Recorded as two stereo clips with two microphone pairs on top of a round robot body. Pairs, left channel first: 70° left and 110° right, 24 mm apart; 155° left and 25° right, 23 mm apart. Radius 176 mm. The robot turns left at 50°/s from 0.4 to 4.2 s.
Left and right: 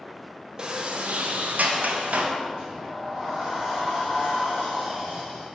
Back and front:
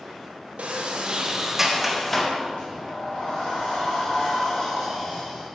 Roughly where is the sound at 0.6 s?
Ahead right.